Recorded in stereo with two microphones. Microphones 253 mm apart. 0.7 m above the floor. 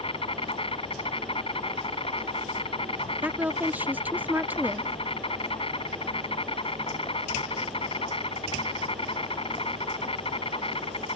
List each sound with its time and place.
0.0 s an insect: 20° left (ahead or behind)
3.2 s a woman speaking: 5° right (ahead or behind)